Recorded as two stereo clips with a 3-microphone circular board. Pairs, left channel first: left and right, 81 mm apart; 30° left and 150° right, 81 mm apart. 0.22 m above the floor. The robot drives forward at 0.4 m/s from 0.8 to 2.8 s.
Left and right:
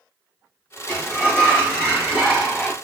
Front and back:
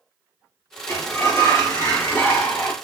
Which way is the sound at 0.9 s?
20° left.